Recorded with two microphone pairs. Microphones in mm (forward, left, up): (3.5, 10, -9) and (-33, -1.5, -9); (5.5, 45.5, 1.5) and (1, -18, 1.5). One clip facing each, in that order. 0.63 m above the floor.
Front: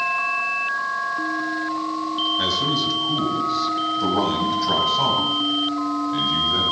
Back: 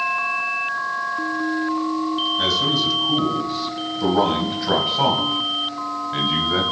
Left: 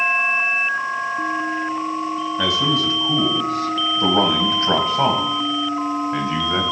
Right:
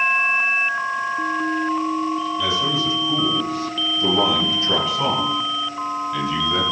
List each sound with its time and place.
2.4 s a man speaking: 105° left, 3.5 m; by 6.6 s 145° left, 3 m